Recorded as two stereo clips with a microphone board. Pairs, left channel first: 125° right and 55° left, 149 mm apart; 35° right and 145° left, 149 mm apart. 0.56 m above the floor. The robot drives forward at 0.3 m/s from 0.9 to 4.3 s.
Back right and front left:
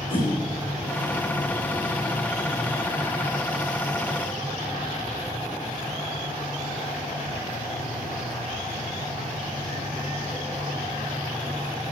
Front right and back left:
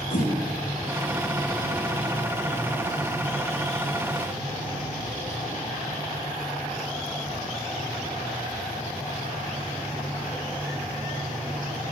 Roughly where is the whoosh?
Right.